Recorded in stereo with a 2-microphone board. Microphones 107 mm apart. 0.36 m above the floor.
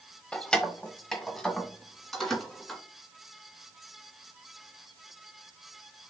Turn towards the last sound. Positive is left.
turn(degrees=0)  # may be behind; listen again after turning